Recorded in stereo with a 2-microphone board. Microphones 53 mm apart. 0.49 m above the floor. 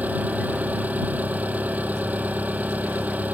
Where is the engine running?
30° right (ahead or behind).